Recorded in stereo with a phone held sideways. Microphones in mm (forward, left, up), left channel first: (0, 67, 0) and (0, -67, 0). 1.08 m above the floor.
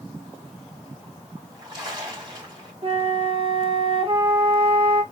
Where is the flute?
40° right (ahead or behind), 1.3 m.